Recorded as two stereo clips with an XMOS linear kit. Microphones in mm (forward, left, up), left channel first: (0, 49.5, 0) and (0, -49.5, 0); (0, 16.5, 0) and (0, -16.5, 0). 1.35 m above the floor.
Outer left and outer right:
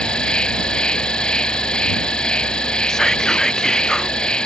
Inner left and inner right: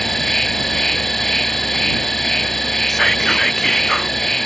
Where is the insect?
10° left (ahead or behind).